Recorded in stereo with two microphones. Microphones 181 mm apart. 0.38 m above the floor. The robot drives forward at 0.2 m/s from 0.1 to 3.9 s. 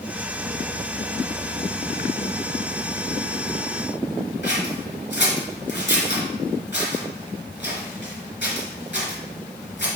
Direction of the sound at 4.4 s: 70° left (ahead or behind).